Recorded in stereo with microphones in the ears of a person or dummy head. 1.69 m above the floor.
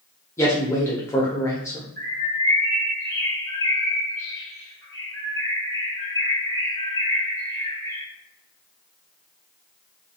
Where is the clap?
No clap in this recording.